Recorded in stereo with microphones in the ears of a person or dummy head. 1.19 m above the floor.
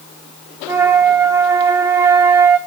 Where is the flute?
5° right (ahead or behind), 0.8 m.